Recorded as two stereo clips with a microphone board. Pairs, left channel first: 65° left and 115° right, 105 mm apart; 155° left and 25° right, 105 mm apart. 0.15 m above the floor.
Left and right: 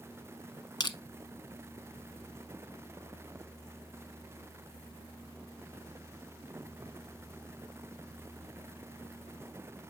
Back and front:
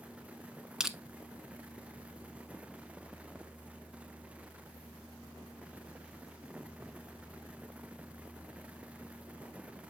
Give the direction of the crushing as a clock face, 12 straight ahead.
10 o'clock.